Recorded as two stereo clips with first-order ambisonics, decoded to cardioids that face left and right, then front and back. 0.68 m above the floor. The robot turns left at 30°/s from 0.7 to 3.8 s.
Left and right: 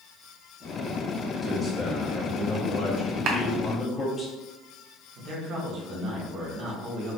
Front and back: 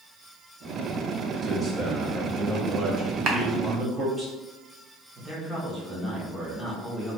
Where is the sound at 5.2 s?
100° right, 1.1 m.